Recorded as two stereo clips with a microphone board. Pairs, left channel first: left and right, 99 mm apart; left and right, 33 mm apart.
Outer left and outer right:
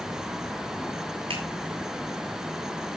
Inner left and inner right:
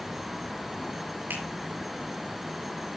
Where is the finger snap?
75° right (ahead or behind), 5 m.